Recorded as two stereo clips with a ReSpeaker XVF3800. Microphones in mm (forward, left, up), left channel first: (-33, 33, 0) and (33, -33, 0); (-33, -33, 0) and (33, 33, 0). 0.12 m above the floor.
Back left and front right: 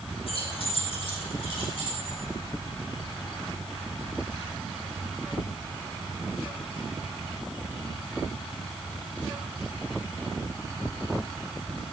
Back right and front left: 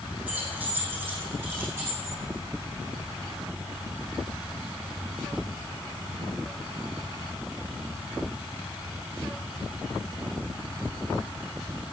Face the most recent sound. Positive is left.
turn(degrees=110)